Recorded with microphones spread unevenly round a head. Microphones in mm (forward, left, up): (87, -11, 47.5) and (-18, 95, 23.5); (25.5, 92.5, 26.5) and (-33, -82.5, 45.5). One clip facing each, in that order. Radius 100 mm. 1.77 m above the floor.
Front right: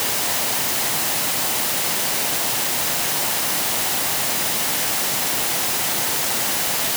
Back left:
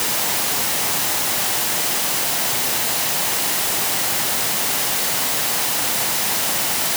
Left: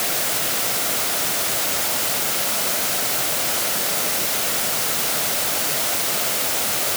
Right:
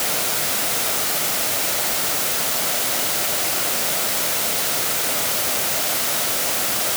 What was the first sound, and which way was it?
Only background noise.